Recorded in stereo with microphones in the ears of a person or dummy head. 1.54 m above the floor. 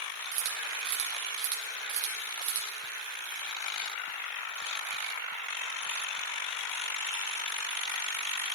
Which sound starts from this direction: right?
A camera shutter, at 0.3 s.